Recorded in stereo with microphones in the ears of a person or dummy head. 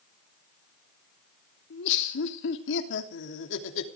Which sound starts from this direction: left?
Laughter, at 1.7 s.